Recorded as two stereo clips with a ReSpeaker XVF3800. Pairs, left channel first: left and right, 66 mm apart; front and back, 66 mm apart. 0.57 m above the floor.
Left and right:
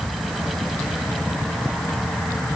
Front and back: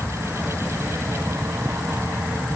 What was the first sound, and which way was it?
Only background noise.